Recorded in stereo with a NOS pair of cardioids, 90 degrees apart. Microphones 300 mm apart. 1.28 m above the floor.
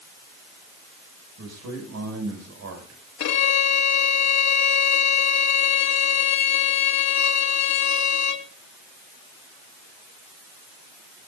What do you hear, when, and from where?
1.4 s a man speaking: 60° right, 6.5 m
3.2 s a violin: 65° left, 2 m